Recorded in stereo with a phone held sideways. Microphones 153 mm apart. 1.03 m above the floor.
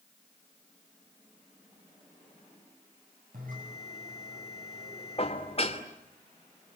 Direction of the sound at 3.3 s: 70° right (ahead or behind).